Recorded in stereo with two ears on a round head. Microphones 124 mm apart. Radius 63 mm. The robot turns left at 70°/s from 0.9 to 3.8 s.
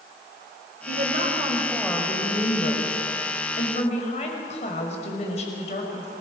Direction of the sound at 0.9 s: 110° right.